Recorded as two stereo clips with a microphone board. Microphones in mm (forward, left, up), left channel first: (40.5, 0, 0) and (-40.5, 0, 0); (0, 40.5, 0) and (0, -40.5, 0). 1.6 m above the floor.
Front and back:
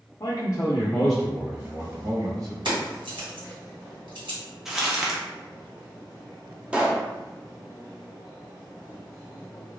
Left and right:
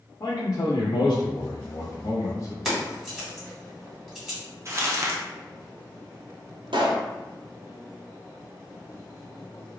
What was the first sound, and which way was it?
A man speaking, 45° left.